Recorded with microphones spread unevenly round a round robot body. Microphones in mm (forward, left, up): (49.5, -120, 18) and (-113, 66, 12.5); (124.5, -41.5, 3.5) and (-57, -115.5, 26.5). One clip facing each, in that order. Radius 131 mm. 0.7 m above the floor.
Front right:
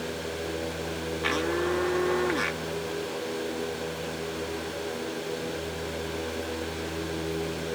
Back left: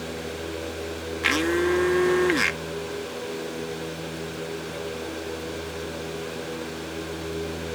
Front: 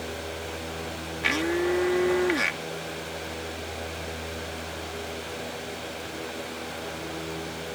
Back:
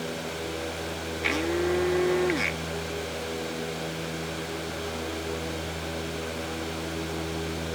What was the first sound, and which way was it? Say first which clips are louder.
A blender: back left 5 dB, front 1 dB; 105° left.